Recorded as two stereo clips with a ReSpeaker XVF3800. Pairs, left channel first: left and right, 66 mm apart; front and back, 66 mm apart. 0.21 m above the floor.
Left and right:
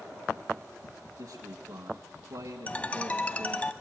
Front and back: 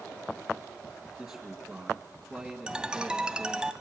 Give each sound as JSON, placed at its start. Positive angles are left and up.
{"t": 1.2, "sound": "a man speaking", "azimuth_deg": -110, "distance_m": 1.7}
{"t": 2.7, "sound": "a ringtone", "azimuth_deg": 125, "distance_m": 0.6}